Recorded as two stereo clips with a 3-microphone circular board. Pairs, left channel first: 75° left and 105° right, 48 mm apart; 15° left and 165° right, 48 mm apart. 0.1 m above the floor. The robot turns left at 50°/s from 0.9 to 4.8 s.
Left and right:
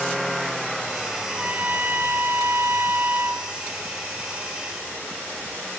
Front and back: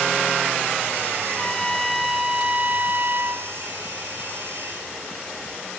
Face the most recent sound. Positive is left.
turn(degrees=140)